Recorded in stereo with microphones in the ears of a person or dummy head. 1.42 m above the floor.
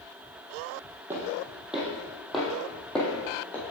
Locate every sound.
1.1 s footsteps: 10° right (ahead or behind), 3 m; by 3.6 s 15° left (ahead or behind), 3.5 m